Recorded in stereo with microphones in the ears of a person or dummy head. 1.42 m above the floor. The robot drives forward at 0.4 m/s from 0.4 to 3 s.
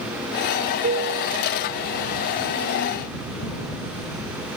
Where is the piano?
65° right (ahead or behind); by 2.2 s 70° right (ahead or behind).